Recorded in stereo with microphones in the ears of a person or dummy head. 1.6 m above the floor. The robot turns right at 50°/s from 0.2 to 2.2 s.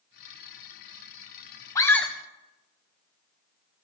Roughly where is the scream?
Centre.